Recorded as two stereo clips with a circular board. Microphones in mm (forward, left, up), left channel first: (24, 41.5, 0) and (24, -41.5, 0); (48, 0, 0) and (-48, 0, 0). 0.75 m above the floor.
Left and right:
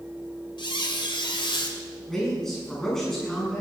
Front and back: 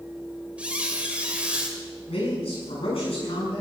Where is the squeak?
105° left, 2 m.